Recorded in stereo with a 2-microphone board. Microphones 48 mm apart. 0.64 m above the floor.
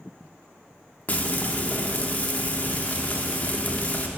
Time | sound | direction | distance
1.1 | frying | 30° left (ahead or behind) | 0.8 m